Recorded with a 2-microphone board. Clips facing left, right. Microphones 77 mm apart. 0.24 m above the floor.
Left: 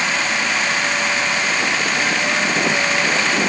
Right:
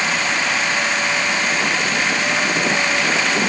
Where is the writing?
I don't hear writing.